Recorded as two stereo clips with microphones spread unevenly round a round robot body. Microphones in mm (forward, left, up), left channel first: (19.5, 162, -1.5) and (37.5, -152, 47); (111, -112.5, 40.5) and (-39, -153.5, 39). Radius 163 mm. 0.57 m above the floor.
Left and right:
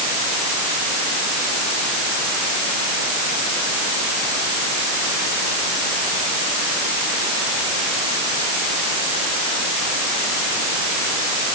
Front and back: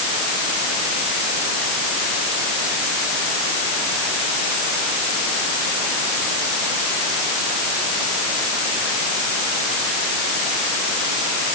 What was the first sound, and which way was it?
Only background noise.